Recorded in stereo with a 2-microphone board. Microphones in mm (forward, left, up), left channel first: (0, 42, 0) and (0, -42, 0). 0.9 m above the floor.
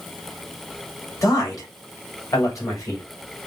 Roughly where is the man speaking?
Left.